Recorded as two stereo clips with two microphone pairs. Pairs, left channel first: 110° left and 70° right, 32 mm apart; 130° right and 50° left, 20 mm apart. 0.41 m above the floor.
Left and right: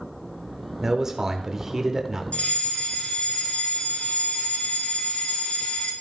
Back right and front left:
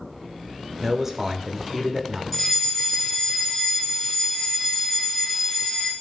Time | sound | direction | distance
0.8 | a man speaking | 5° right | 0.9 m
2.3 | a fire alarm | 145° left | 3 m